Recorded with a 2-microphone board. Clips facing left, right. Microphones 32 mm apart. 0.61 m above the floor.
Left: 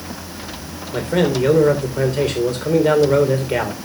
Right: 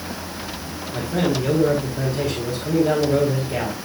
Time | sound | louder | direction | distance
0.9 | a man speaking | left 4 dB | 65° left (ahead or behind) | 2.5 m